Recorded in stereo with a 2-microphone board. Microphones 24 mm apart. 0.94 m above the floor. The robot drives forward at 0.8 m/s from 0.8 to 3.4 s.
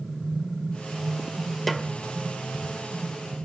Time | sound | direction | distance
1.7 | a snare drum | 5° left (ahead or behind) | 1.3 m